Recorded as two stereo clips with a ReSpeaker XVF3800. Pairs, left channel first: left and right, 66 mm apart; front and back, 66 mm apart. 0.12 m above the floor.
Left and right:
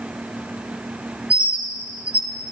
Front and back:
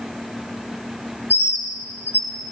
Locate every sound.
1.3 s a bird: 30° right, 1.4 m